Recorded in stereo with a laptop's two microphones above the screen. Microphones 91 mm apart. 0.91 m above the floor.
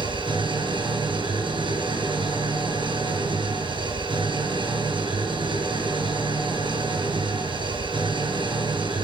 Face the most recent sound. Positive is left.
turn(degrees=-60)  # may be behind; listen again after turning